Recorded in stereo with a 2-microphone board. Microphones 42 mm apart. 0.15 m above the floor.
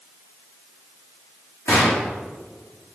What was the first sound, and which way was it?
A gunshot, 85° left.